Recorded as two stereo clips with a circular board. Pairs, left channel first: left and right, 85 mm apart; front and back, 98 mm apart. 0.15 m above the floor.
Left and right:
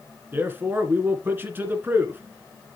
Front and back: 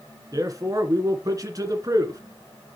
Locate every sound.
0.3 s a man speaking: 145° right, 2 m